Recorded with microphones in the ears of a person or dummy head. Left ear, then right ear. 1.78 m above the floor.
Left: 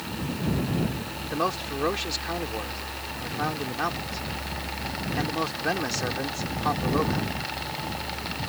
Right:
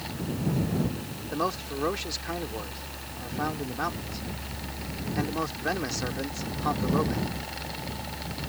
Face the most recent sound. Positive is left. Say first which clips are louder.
# left 2 dB
turn(degrees=10)  # may be behind; listen again after turning